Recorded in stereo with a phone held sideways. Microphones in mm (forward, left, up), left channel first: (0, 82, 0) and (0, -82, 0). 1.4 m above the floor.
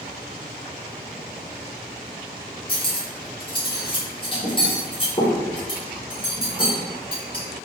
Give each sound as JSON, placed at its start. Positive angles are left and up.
{"t": 2.7, "sound": "cutlery clinking", "side_deg": 30, "distance_m": 1.0}